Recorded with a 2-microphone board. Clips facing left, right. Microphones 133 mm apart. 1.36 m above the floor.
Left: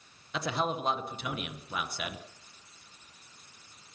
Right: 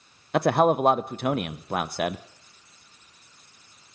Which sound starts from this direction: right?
A man speaking, at 0.3 s.